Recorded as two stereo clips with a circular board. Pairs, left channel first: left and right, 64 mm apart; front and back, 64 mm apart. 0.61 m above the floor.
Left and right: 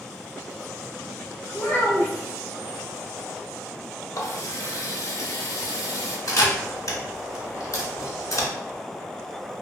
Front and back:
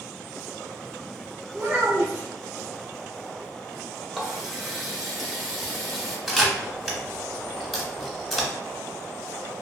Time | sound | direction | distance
1.5 | a child speaking | 130° left | 0.9 m
4.1 | a running tap | 90° left | 0.6 m
6.3 | a camera shutter | 90° left | 0.8 m